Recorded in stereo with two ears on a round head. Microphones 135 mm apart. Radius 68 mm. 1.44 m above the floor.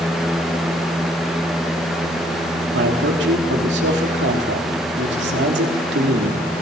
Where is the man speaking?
90° right, 3.5 m.